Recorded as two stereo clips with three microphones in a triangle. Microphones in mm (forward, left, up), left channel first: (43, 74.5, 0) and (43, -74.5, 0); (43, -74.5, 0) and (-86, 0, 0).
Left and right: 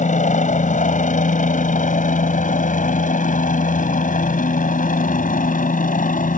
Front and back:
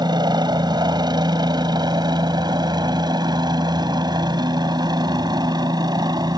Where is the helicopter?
95° left; by 6.4 s 90° left.